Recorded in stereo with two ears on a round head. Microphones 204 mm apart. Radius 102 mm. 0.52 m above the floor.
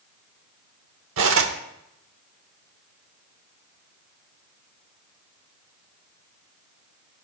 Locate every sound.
1.2 s cutlery clinking: 60° right (ahead or behind), 1.0 m